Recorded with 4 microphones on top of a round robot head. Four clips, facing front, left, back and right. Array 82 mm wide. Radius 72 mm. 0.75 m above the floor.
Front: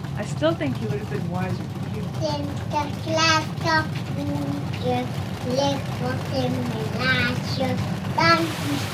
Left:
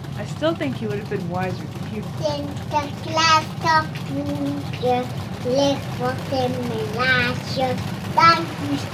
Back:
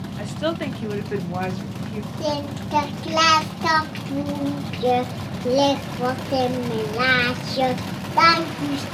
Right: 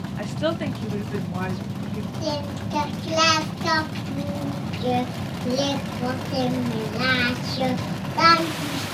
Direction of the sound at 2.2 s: 145° left.